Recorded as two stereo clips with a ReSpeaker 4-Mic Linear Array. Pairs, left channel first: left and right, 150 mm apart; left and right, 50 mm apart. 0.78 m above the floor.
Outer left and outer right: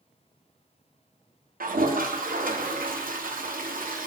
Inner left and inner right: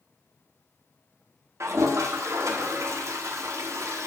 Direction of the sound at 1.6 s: 70° right (ahead or behind).